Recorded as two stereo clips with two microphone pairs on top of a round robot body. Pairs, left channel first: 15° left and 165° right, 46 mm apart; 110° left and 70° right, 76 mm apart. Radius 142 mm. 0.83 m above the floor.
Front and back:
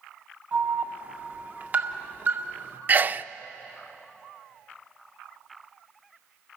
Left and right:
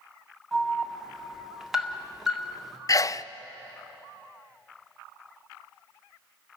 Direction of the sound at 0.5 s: 155° right.